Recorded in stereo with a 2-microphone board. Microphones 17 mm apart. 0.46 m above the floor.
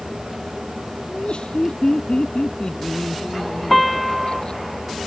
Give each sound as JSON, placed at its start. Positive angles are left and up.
{"t": 1.1, "sound": "laughter", "side_deg": 55}
{"t": 3.7, "sound": "a piano", "side_deg": -5}